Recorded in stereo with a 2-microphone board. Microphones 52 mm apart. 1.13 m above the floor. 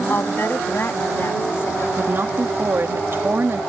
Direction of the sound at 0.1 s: 50° left (ahead or behind).